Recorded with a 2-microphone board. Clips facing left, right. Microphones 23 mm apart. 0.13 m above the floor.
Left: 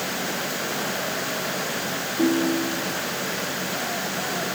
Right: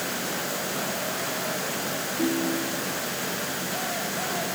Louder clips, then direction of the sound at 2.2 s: Left 5 dB; 30° left (ahead or behind).